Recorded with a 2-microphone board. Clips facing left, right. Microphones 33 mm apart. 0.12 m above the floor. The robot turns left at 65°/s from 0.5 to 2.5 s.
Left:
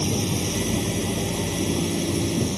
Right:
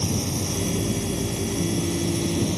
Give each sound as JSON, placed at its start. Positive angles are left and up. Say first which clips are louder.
{"t": 0.0, "sound": "a drone", "louder": "left 2 dB", "side_deg": 35}